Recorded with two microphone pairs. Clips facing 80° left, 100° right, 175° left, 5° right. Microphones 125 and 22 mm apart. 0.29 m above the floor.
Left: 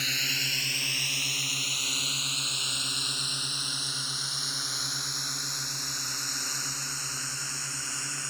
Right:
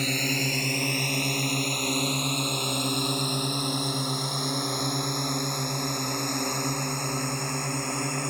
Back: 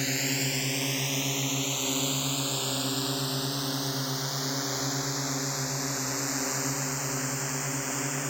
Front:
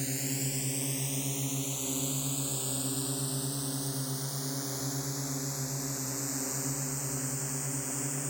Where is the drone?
140° right; by 8.3 s 135° right.